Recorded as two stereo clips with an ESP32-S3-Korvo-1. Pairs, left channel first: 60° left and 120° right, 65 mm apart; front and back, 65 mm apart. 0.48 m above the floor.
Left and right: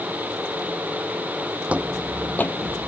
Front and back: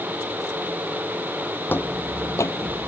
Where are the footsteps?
55° right; by 2.9 s 45° left.